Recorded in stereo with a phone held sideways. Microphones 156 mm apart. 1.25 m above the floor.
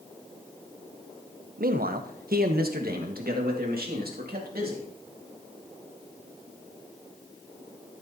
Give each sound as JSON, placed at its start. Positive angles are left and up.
{"t": 1.6, "sound": "a man speaking", "side_deg": -70, "distance_m": 0.7}